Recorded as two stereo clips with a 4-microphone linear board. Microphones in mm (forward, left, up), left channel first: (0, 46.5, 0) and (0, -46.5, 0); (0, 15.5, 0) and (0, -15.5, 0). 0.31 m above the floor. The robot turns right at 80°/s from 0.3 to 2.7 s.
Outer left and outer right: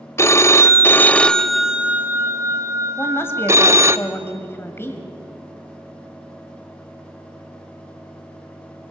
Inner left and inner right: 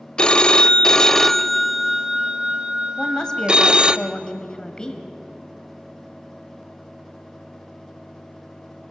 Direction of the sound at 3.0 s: 25° left (ahead or behind).